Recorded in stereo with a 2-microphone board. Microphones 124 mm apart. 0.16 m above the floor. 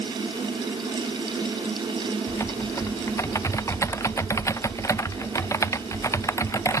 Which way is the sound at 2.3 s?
25° left (ahead or behind).